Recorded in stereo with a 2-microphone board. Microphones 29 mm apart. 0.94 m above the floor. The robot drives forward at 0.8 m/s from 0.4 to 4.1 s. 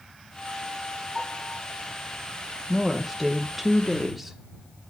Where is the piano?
5° left (ahead or behind), 5 m.